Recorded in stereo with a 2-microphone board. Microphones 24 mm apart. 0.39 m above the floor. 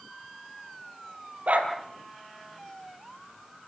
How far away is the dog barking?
About 3.5 m.